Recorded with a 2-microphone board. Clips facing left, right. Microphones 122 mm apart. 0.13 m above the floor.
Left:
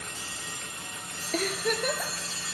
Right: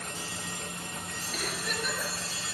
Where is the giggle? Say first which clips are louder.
Left 8 dB; 55° left (ahead or behind), 1.8 m.